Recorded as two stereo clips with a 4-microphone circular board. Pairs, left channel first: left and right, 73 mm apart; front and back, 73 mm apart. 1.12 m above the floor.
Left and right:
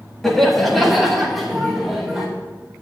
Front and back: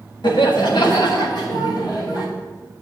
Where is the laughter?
5° left, 1.6 m; by 2.3 s straight ahead, 3.5 m.